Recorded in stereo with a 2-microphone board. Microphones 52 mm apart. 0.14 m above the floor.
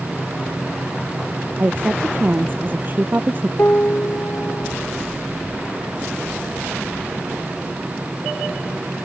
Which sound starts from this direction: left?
A piano, at 3.6 s.